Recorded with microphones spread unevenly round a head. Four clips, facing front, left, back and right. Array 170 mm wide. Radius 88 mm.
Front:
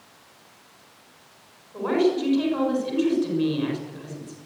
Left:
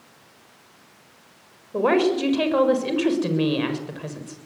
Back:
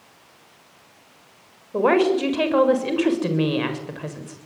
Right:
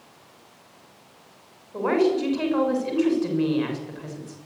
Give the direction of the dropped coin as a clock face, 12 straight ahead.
No dropped coin in this recording.